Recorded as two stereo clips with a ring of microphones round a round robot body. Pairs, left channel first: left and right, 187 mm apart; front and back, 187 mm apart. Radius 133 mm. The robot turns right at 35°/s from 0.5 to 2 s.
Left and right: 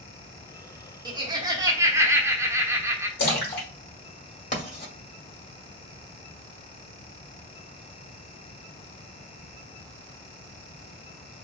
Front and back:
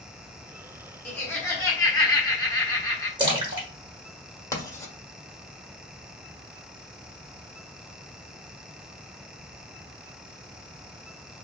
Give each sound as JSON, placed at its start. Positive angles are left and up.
{"t": 1.1, "sound": "laughter", "azimuth_deg": -70, "distance_m": 0.8}
{"t": 3.2, "sound": "a splash", "azimuth_deg": 120, "distance_m": 1.2}
{"t": 4.5, "sound": "writing", "azimuth_deg": 65, "distance_m": 1.3}